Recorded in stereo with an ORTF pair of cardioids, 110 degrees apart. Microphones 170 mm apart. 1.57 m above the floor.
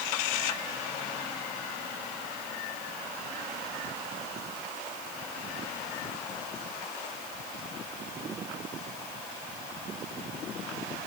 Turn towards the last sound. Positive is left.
No sound to turn to.